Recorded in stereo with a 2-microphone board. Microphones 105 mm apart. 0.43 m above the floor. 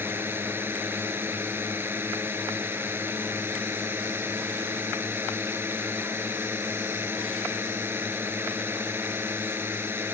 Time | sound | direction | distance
0.0 | a drone | 20° right (ahead or behind) | ?